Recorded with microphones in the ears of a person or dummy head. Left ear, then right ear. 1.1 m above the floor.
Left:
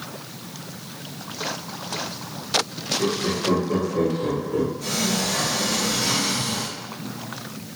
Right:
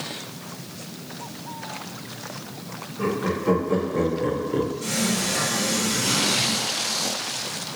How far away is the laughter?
About 1.5 m.